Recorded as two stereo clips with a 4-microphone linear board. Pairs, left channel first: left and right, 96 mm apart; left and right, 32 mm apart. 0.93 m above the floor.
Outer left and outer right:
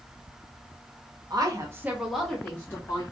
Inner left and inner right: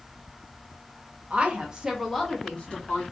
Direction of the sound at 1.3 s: 45° right (ahead or behind).